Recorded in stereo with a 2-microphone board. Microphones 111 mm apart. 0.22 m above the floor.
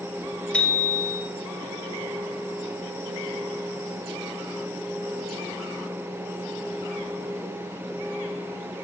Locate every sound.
0.5 s a bicycle bell: 10° left (ahead or behind), 3 m